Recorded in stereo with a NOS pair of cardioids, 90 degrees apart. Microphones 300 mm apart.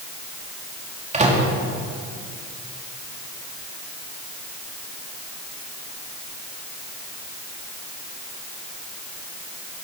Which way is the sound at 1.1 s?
25° right.